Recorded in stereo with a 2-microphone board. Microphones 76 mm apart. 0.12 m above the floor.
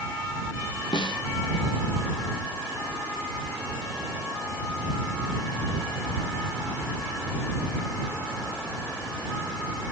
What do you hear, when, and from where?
0.9 s a snare drum: 85° left